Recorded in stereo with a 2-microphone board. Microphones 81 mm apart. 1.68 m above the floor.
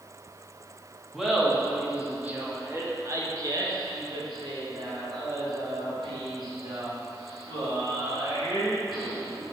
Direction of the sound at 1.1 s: 5° right (ahead or behind).